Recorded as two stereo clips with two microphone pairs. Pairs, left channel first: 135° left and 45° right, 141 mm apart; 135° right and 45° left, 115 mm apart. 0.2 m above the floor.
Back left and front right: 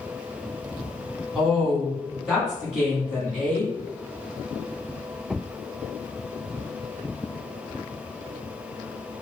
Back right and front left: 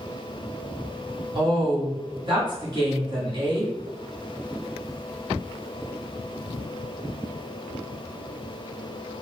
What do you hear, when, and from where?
1.4 s a woman speaking: 35° left, 1.6 m